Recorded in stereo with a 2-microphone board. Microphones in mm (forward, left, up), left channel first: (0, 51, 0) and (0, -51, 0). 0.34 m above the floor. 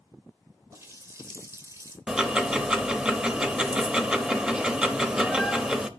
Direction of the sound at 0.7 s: 30° right (ahead or behind).